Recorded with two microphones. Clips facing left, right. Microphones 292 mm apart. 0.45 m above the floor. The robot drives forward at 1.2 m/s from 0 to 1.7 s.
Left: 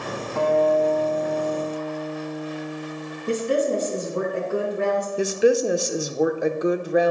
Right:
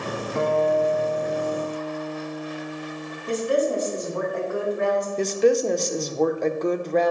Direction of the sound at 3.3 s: 35° left (ahead or behind).